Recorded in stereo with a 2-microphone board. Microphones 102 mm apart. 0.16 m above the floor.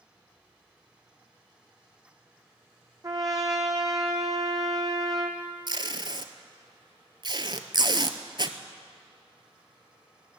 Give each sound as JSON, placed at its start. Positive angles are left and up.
{"t": 3.0, "sound": "a trumpet", "side_deg": -35, "distance_m": 1.5}
{"t": 5.7, "sound": "tape being pulled", "side_deg": -50, "distance_m": 0.8}